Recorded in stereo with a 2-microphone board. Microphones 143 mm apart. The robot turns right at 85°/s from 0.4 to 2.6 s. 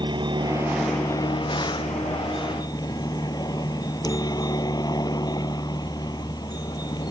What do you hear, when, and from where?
0.0 s a helicopter: 35° right (ahead or behind); by 7.1 s 30° left (ahead or behind)